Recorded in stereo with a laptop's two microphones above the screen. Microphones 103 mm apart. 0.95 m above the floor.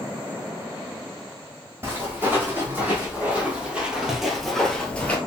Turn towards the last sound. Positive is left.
turn(degrees=20)  # may be behind; listen again after turning